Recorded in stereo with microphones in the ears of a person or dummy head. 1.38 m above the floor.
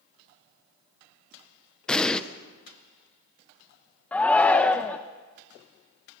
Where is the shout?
5° left (ahead or behind), 0.8 m.